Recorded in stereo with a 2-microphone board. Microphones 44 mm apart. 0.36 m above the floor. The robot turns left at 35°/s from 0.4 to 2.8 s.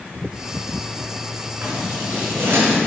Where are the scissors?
45° right (ahead or behind), 5 m; by 2.8 s 75° right (ahead or behind), 5 m.